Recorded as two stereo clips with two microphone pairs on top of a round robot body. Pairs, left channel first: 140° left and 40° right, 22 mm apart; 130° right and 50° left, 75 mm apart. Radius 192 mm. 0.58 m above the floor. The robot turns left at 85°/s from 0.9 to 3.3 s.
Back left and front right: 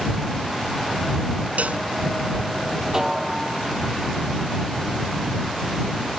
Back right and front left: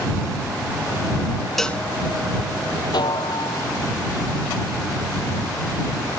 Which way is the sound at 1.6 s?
45° right.